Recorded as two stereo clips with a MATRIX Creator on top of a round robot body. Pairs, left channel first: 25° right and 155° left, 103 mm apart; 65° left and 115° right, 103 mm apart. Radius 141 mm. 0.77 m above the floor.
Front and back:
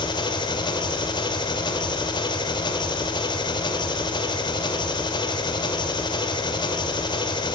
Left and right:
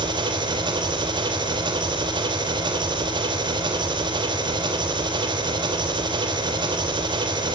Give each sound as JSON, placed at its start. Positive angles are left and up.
{"t": 0.0, "sound": "an engine running", "azimuth_deg": -65, "distance_m": 2.5}